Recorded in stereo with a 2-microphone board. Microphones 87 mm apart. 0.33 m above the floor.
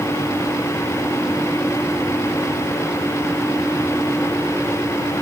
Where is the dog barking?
No dog barking in this recording.